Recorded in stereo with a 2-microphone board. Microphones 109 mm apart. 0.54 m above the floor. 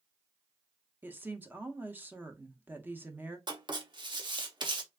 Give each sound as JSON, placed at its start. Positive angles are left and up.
{"t": 1.0, "sound": "a woman speaking", "side_deg": -20, "distance_m": 0.6}
{"t": 3.5, "sound": "writing", "side_deg": -45, "distance_m": 0.7}